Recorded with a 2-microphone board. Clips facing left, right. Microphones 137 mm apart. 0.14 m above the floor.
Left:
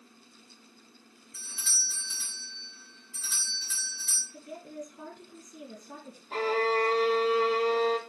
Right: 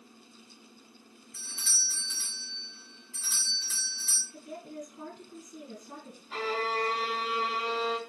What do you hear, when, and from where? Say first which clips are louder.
1.3 s a doorbell: left 1 dB; 45° right (ahead or behind), 3 m
4.3 s a woman speaking: even; 45° right (ahead or behind), 2.5 m
6.3 s a violin: left 5 dB; 45° left (ahead or behind), 0.9 m